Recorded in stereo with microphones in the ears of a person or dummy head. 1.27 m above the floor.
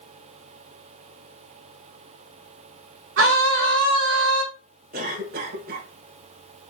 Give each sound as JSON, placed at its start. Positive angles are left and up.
{"t": 3.2, "sound": "a scream", "side_deg": -75, "distance_m": 1.5}
{"t": 4.9, "sound": "a cough", "side_deg": -50, "distance_m": 1.5}